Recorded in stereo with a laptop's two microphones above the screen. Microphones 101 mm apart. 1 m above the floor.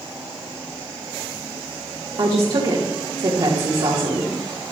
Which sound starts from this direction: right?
A woman speaking, at 2.2 s.